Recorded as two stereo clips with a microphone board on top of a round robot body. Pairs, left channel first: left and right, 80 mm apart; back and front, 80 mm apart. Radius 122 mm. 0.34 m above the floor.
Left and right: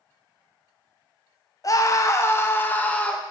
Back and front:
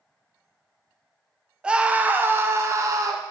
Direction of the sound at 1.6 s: 75° left.